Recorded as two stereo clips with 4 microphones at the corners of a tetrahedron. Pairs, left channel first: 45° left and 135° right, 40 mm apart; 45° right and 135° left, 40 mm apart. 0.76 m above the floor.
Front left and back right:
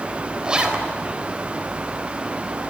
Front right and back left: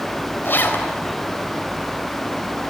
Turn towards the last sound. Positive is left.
turn(degrees=-65)